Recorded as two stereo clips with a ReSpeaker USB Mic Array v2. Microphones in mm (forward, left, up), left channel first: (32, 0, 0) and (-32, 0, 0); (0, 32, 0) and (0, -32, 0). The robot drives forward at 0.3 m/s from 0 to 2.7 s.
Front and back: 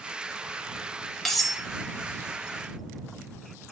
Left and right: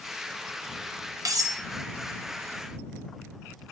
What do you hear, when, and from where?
1.2 s cutlery clinking: 85° right, 0.7 m; by 1.6 s 95° right, 0.7 m